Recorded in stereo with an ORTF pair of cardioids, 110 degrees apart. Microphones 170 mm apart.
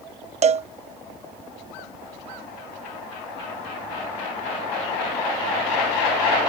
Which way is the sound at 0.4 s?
40° right.